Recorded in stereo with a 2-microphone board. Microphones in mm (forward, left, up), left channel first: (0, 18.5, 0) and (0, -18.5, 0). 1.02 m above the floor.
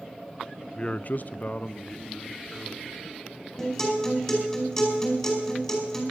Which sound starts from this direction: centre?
A man speaking, at 0.8 s.